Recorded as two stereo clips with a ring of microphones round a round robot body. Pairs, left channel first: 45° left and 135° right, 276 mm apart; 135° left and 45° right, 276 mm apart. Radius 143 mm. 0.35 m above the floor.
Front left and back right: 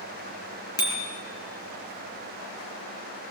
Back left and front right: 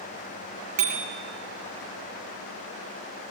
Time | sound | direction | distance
0.8 | a bicycle bell | 30° right | 5 m